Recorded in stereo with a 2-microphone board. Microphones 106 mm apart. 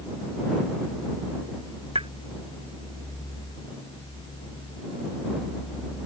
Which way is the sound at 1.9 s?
60° right (ahead or behind).